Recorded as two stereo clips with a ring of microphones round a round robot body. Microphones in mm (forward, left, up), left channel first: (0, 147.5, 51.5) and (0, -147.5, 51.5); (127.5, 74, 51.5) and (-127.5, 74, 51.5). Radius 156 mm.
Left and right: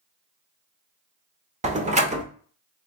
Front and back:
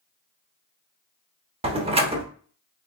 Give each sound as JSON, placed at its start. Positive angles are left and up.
{"t": 1.6, "sound": "a door slam", "azimuth_deg": -135, "distance_m": 0.9}